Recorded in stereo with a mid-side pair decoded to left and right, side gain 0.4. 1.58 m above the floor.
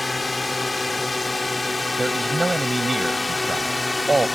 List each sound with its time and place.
0.0 s a drone: 20° left
2.0 s a man speaking: 20° right